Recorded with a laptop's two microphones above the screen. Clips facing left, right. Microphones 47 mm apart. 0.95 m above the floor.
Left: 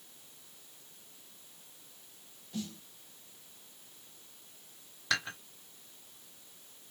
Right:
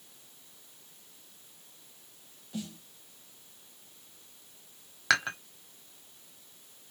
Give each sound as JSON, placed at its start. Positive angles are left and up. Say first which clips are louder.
{"t": 2.5, "sound": "a snare drum", "louder": "right 1 dB", "side_deg": -15, "distance_m": 1.2}
{"t": 5.1, "sound": "dishes clattering", "louder": "right 7 dB", "side_deg": -80, "distance_m": 1.1}